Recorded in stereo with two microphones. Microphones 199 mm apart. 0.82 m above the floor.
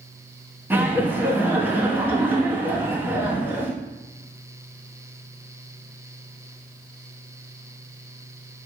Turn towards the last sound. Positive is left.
turn(degrees=-10)  # may be behind; listen again after turning